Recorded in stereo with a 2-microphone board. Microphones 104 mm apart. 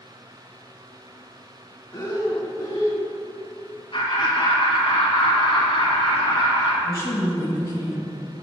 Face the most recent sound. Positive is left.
turn(degrees=35)  # may be behind; listen again after turning